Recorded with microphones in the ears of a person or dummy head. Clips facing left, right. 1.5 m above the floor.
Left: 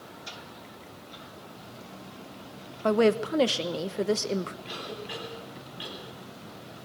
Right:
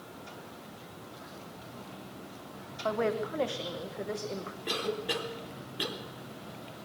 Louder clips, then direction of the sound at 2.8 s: Left 8 dB; 50° left (ahead or behind).